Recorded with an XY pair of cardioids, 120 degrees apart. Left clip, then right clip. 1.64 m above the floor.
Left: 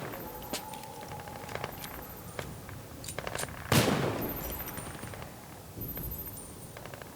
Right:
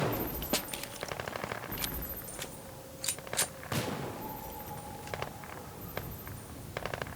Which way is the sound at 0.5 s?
35° right.